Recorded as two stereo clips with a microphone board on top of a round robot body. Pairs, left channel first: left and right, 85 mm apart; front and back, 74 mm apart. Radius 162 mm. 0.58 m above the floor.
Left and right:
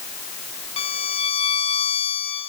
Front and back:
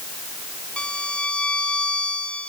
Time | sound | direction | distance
0.8 | a violin | 75° left | 1.7 m